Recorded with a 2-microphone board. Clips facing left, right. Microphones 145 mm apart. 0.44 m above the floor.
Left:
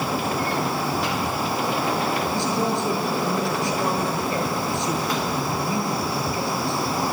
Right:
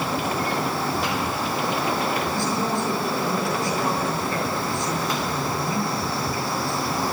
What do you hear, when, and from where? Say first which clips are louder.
2.3 s a man speaking: left 1 dB; 20° left (ahead or behind), 7 m